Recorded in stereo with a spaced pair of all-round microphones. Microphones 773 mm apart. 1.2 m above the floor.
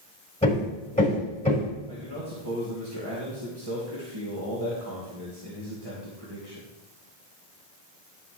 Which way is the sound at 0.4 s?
10° left (ahead or behind).